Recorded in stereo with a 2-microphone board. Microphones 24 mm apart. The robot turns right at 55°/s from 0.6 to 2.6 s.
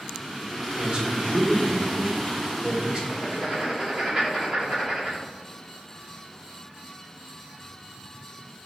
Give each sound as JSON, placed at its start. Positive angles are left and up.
{"t": 0.8, "sound": "a man speaking", "azimuth_deg": -140, "distance_m": 1.2}
{"t": 3.1, "sound": "writing", "side_deg": -45, "distance_m": 2.0}